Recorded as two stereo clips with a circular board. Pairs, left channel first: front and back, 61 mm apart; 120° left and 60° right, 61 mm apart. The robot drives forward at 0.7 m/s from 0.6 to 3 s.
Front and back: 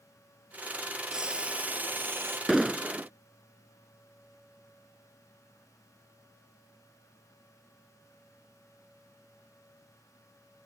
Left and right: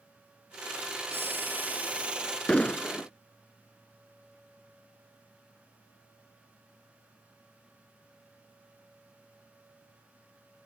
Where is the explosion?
90° left; by 3.1 s 140° left.